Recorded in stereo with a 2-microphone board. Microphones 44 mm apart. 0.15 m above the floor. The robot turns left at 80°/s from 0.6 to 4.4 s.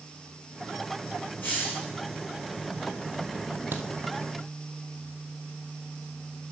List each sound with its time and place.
1.4 s a hiss: 135° left, 5.5 m; by 1.9 s 100° left, 5.5 m
3.7 s a crack: 55° right (ahead or behind), 1.6 m; by 3.9 s 70° right (ahead or behind), 1.6 m